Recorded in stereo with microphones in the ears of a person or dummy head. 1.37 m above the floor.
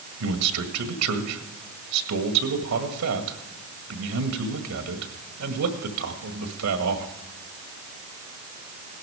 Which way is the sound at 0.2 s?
85° right.